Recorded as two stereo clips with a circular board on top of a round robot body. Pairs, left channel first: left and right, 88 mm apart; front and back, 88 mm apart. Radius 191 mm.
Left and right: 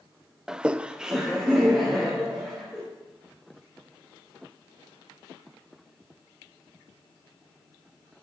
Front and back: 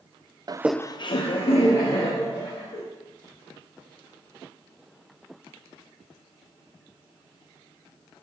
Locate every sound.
0.5 s laughter: 170° right, 0.5 m; by 2.8 s straight ahead, 2.5 m